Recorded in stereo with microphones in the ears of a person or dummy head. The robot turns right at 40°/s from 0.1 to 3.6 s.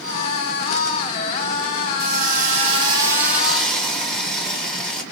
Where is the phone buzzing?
I don't hear a phone buzzing.